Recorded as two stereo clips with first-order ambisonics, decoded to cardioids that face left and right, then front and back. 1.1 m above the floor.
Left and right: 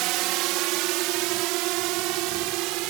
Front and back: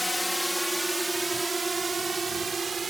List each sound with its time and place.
0.0 s a drone: 85° right; by 2.9 s 110° right